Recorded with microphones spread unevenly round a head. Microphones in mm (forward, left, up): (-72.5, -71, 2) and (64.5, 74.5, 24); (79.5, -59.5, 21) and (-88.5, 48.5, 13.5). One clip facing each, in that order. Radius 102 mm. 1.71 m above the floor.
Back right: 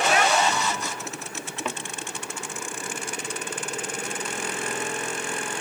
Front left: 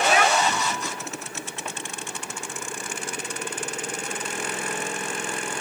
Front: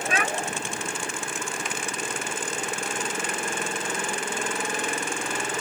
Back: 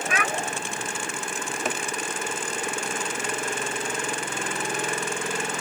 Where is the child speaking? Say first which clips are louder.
Front left 2 dB, front 2 dB; 30° left.